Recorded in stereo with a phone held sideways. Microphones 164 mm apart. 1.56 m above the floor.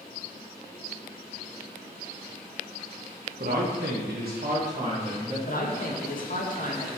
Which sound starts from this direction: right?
A man speaking, at 3.4 s.